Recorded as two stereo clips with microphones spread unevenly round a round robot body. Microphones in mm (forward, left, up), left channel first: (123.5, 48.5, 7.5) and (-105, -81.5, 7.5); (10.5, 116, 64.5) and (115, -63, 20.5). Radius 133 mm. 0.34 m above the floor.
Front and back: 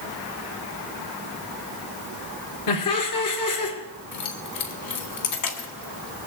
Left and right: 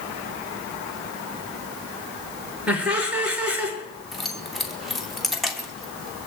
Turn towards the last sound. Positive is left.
turn(degrees=25)